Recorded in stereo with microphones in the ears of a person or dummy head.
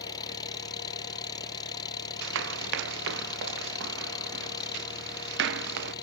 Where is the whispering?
No whispering in this recording.